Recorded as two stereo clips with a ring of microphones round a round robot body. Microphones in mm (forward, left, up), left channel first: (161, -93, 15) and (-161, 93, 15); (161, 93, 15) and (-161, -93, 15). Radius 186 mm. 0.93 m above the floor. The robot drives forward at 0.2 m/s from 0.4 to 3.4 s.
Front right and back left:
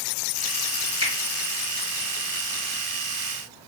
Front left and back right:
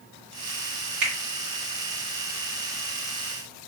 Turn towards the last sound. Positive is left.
turn(degrees=-145)